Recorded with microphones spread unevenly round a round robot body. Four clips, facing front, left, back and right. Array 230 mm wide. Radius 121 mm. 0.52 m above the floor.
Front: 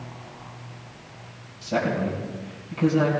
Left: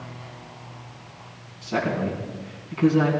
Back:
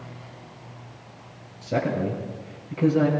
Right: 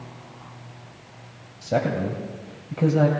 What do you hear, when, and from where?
1.6 s a man speaking: 115° right, 2.5 m